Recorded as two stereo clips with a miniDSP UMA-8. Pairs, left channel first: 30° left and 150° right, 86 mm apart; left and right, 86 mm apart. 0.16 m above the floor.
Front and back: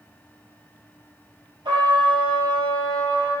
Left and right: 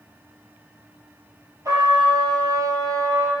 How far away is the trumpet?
About 2 m.